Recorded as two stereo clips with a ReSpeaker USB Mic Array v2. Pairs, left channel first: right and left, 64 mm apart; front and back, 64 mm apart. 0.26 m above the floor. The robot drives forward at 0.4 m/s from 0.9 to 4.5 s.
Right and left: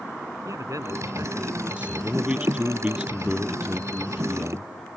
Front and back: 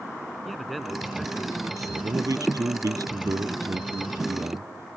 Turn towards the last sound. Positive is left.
turn(degrees=165)